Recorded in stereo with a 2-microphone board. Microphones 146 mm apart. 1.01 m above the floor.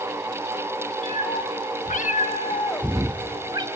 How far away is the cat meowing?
About 1.7 m.